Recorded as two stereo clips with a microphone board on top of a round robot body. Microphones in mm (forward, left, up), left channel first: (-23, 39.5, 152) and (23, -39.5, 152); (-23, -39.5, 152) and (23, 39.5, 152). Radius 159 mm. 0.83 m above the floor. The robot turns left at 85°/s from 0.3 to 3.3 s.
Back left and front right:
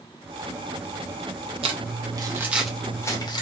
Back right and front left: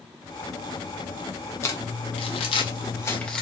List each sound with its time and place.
1.6 s crumpling: 60° right, 0.8 m; by 3.4 s 160° left, 0.8 m